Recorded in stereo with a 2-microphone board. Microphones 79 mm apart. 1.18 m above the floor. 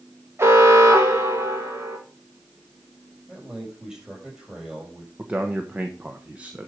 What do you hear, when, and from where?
0.4 s an alarm: 35° right (ahead or behind), 2 m
3.3 s a man speaking: 10° right (ahead or behind), 6.5 m
5.2 s a man speaking: 20° right (ahead or behind), 1.1 m